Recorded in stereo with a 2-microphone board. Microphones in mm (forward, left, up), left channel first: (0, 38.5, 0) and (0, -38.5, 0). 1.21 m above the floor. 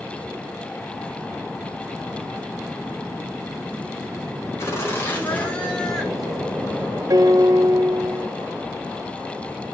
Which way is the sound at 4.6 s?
35° left (ahead or behind).